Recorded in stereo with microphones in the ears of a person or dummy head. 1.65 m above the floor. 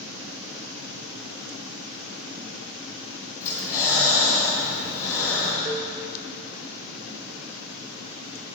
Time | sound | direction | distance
3.4 | breathing | 10° left (ahead or behind) | 2 m
5.7 | a cowbell | 40° right (ahead or behind) | 0.7 m